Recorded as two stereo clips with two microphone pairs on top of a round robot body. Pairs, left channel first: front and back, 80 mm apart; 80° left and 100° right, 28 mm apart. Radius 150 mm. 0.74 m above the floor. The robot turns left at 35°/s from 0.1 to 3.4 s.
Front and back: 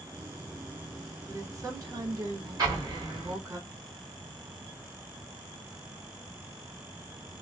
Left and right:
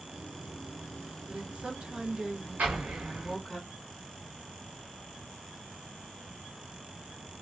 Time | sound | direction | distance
1.3 | a woman speaking | 135° right | 1.3 m
2.6 | an explosion | 130° right | 1.0 m